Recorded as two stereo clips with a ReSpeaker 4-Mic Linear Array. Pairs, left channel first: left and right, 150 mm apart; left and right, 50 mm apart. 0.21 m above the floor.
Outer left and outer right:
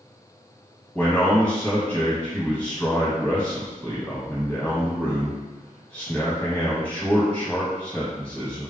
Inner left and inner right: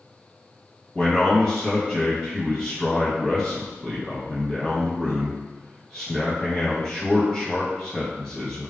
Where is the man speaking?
10° left (ahead or behind), 1.3 m.